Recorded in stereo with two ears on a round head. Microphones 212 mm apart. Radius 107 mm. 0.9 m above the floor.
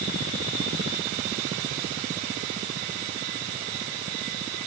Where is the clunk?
I don't hear a clunk.